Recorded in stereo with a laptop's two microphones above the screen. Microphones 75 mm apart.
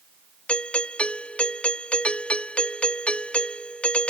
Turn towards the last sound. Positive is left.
turn(degrees=15)  # may be behind; listen again after turning